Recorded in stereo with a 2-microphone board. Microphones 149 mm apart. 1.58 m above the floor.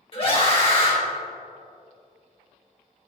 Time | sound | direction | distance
0.1 | a scream | 40° left (ahead or behind) | 2 m